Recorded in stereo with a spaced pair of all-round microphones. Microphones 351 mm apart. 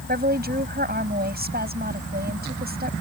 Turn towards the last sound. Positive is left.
turn(degrees=-25)  # may be behind; listen again after turning